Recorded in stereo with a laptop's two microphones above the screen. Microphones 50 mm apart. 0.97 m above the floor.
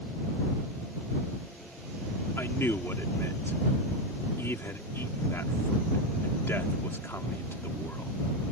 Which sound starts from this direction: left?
A man speaking, at 2.4 s.